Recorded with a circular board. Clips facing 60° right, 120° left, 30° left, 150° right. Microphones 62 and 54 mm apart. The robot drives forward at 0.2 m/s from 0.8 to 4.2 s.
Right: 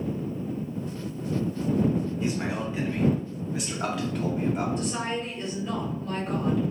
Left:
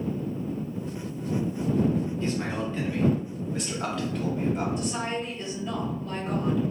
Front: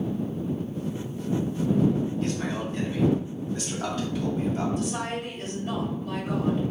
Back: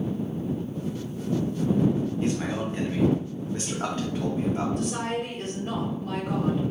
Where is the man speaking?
115° right, 0.8 m; by 4.7 s 150° right, 0.9 m.